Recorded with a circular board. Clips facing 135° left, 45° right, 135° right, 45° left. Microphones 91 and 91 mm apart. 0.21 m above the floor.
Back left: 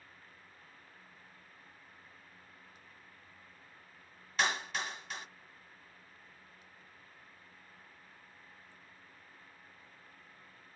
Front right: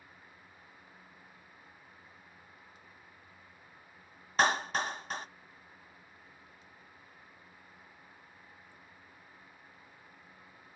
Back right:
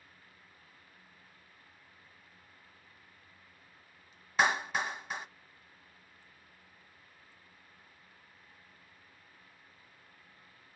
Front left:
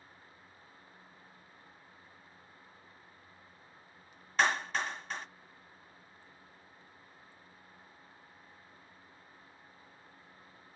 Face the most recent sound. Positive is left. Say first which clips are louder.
# front right 6 dB, back right 1 dB
turn(degrees=-60)